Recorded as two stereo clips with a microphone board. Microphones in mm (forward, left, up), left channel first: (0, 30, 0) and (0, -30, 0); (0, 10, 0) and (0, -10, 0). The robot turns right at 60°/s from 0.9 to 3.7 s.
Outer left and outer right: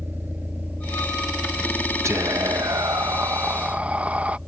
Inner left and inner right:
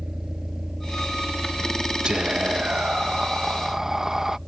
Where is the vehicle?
35° right (ahead or behind); by 4.5 s 10° right (ahead or behind).